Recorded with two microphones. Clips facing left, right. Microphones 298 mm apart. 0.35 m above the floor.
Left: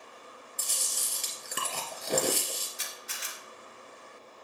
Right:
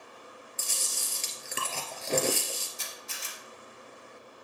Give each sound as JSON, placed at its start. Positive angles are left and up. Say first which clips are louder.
{"t": 0.6, "sound": "chewing", "louder": "right 1 dB", "side_deg": 10, "distance_m": 2.5}
{"t": 2.8, "sound": "a camera shutter", "louder": "right 1 dB", "side_deg": 80, "distance_m": 3.0}